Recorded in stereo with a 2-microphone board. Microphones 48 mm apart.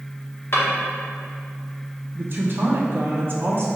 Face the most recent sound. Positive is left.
turn(degrees=-50)  # may be behind; listen again after turning